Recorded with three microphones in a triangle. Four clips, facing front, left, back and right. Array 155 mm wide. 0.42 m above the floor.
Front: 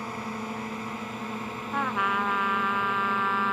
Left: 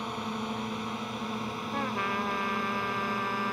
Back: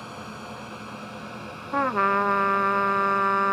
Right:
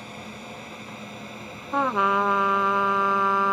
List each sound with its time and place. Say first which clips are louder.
0.0 s a drone: left 6 dB, front 4 dB; 45° left; by 3.5 s 40° left
1.7 s a trumpet: right 11 dB, back 4 dB; 130° right